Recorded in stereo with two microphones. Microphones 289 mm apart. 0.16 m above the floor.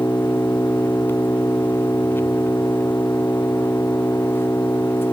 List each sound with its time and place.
0.0 s an engine running: 5° left (ahead or behind)